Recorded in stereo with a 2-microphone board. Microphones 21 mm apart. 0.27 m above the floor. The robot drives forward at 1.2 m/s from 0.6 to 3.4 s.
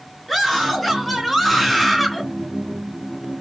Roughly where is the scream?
Centre.